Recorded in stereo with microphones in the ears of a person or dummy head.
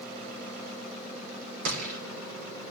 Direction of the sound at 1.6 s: 65° right (ahead or behind).